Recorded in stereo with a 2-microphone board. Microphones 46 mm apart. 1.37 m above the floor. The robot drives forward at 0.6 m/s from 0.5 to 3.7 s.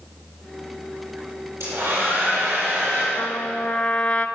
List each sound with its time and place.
1.6 s a hair dryer: 70° right (ahead or behind), 9.5 m; by 3.1 s 75° right (ahead or behind), 9.5 m
3.2 s a trumpet: 20° left (ahead or behind), 1.0 m; by 4.3 s 15° left (ahead or behind), 1.3 m